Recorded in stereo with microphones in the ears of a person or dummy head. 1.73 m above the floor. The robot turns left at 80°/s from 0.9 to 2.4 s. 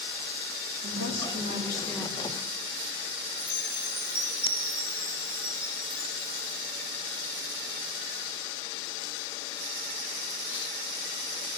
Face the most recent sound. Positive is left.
turn(degrees=30)  # may be behind; listen again after turning